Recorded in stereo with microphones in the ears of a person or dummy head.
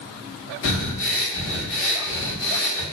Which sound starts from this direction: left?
Breathing, at 0.6 s.